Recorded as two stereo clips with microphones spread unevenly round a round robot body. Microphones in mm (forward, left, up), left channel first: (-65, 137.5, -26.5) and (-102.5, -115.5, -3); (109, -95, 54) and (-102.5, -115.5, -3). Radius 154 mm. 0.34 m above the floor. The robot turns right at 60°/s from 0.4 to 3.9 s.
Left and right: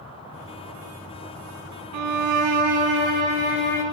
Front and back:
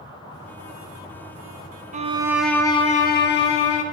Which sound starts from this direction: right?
A violin, at 1.9 s.